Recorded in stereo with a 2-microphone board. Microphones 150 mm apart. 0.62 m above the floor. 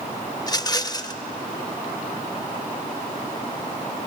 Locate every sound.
0.4 s a rattle: 25° left (ahead or behind), 0.6 m